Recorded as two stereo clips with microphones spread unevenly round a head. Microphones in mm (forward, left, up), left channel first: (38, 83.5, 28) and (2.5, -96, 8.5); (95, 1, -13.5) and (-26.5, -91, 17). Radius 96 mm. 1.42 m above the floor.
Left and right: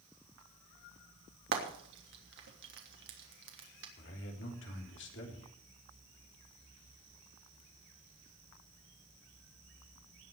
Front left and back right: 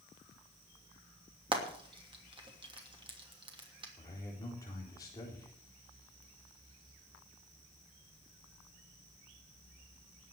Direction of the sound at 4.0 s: 110° left.